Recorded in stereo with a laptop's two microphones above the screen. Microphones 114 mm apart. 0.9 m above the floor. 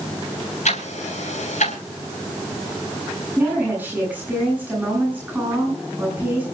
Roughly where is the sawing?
No sawing in this recording.